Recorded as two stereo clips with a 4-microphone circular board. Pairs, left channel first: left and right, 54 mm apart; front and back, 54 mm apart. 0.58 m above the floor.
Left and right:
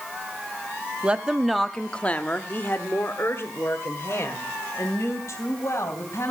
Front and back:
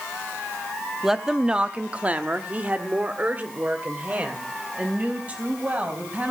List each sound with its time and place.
1.0 s a woman speaking: 105° right, 0.8 m; by 6.3 s 120° left, 3.5 m